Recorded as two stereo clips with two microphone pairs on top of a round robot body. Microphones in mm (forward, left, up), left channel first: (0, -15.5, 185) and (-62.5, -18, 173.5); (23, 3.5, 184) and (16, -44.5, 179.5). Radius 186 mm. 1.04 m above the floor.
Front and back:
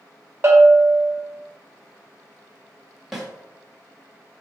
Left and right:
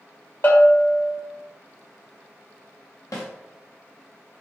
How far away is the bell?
About 1.5 m.